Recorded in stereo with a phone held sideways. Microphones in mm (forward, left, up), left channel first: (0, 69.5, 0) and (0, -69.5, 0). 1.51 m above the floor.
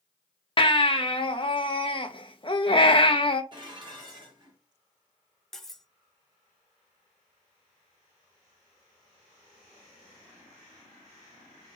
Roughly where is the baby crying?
Left.